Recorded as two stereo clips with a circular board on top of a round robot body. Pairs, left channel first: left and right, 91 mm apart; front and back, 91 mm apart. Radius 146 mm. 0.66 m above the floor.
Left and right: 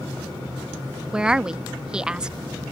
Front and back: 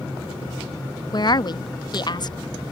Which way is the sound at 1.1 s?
10° right.